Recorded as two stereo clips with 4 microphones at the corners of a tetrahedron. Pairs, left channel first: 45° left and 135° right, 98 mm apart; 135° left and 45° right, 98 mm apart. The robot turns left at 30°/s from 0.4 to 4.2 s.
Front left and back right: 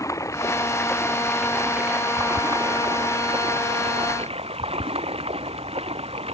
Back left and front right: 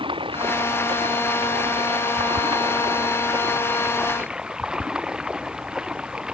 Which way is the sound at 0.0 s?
15° right.